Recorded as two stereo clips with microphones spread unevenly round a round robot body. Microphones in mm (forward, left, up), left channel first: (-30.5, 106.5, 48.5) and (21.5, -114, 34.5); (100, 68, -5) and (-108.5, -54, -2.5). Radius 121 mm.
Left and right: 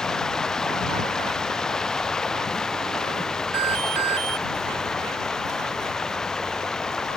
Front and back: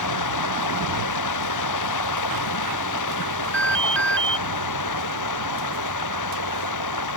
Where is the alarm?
55° right.